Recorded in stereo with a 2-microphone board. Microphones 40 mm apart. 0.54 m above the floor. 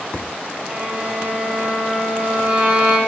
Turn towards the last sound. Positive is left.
turn(degrees=-30)  # may be behind; listen again after turning